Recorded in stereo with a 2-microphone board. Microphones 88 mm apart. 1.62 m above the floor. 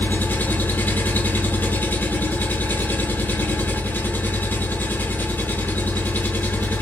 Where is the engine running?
25° left (ahead or behind), 1.4 m.